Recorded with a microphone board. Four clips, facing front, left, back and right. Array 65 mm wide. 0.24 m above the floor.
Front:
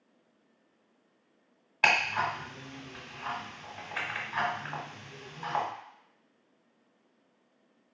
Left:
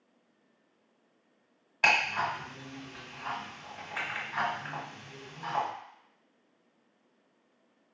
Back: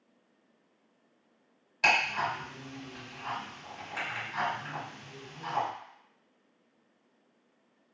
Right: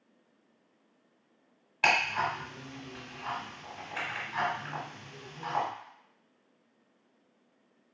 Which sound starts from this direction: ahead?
Ticking, at 1.8 s.